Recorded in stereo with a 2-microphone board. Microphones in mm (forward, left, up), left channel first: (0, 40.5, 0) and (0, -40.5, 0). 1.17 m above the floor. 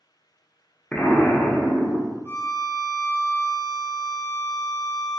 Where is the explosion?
15° left (ahead or behind), 0.6 m.